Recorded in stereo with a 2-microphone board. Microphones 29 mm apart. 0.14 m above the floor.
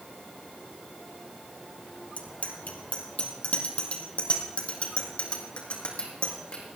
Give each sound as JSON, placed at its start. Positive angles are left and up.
{"t": 2.2, "sound": "a bicycle bell", "side_deg": 55, "distance_m": 2.5}